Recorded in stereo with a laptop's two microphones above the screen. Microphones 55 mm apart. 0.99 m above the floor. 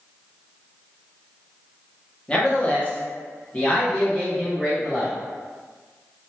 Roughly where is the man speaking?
Centre.